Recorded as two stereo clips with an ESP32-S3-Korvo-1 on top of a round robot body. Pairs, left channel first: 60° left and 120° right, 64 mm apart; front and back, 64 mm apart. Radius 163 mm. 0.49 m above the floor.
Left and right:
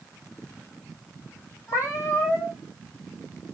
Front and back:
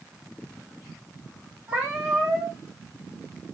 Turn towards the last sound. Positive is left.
turn(degrees=105)